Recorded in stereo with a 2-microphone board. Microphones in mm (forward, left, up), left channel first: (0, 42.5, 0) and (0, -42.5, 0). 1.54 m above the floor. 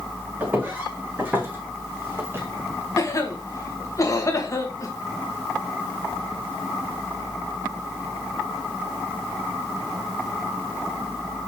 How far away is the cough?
About 1.7 m.